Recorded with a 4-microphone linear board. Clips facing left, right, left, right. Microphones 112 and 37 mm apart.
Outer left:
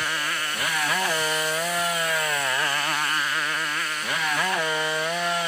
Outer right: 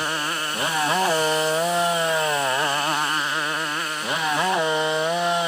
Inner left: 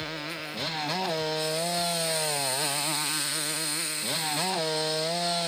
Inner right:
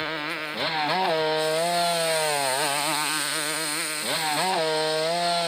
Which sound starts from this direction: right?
A motorcycle, at 0.0 s.